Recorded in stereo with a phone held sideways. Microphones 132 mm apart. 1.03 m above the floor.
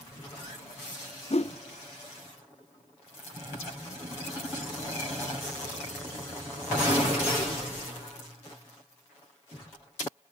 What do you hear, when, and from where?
1.3 s a whoosh: 55° left (ahead or behind), 0.8 m